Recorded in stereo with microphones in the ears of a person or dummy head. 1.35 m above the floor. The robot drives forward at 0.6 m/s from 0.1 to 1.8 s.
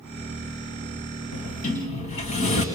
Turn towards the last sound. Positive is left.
turn(degrees=35)  # may be behind; listen again after turning